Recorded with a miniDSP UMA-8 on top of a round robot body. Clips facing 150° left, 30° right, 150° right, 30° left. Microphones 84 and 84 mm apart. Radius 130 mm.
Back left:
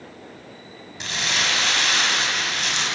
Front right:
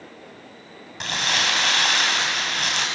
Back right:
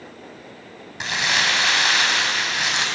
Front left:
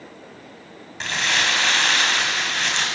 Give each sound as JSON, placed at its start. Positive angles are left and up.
{"t": 1.0, "sound": "crumpling", "azimuth_deg": -70, "distance_m": 4.0}